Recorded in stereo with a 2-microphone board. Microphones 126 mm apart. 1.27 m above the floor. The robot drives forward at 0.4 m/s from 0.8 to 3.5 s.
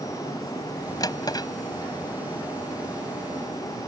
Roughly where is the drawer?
Left.